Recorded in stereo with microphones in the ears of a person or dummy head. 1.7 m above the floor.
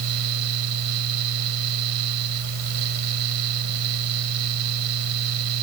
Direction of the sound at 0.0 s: 90° right.